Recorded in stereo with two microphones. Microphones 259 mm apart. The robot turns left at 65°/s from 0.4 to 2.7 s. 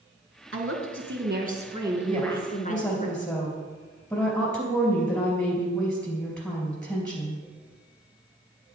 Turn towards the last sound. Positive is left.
turn(degrees=175)